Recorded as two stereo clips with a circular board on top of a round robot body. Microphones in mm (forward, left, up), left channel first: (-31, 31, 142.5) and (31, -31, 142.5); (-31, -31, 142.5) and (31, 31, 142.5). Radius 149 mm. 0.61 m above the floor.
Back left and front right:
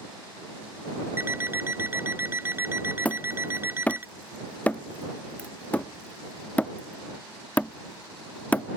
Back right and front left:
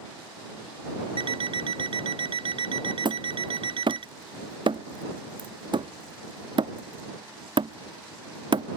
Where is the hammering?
65° left.